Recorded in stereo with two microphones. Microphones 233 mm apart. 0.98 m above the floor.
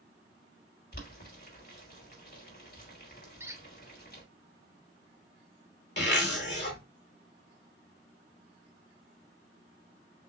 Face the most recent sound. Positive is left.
turn(degrees=50)  # may be behind; listen again after turning